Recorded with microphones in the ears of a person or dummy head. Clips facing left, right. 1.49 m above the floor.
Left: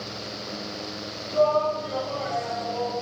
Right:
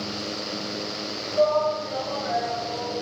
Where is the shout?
55° left (ahead or behind), 4.5 m; by 2.9 s 70° left (ahead or behind), 5.5 m.